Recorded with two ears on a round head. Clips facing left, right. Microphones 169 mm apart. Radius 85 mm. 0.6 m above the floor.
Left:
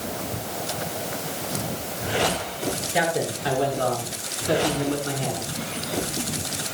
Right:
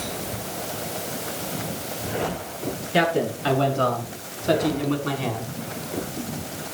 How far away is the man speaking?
About 7.5 m.